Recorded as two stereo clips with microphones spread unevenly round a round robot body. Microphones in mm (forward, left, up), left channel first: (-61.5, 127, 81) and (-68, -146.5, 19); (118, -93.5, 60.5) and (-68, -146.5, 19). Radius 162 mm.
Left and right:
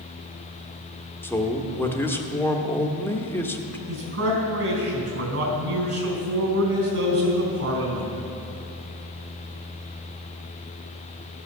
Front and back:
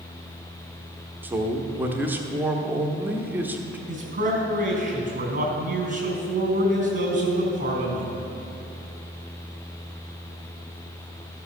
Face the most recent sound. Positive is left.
turn(degrees=-120)